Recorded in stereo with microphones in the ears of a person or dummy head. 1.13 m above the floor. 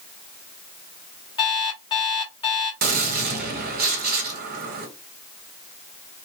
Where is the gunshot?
45° right (ahead or behind), 0.9 m.